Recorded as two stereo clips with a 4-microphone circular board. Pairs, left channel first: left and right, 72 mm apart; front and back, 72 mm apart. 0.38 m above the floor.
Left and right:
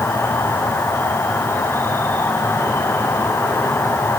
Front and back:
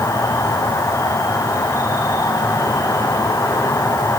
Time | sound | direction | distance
0.0 | an insect | 40° left | 3.5 m